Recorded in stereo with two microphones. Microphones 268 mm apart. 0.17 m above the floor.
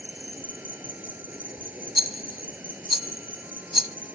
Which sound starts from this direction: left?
A rattle, at 1.9 s.